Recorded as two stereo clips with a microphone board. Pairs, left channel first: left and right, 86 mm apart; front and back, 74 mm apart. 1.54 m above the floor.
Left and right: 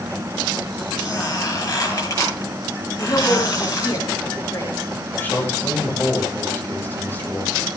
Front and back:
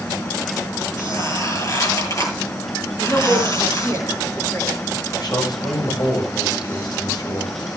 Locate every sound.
1.0 s a squeak: 40° left, 9.5 m
3.0 s a woman speaking: 50° left, 5 m
5.1 s a man speaking: 25° left, 6 m